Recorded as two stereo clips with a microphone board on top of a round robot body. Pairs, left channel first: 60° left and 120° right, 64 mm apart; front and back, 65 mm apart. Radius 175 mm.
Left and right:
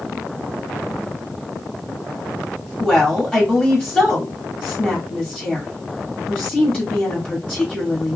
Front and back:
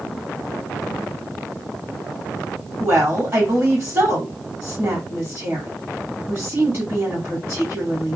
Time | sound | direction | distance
2.8 | a woman speaking | 135° left | 1.8 m